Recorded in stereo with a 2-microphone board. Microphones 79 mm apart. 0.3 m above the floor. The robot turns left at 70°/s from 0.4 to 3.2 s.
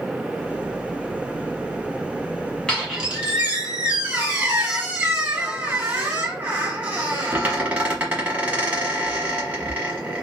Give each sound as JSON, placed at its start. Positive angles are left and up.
{"t": 2.7, "sound": "a squeak", "azimuth_deg": 15, "distance_m": 1.4}